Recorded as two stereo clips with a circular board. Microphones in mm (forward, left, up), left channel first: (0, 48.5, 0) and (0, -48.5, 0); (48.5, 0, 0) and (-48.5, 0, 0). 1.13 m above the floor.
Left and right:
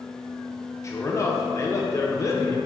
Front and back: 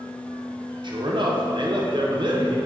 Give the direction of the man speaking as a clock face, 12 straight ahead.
7 o'clock.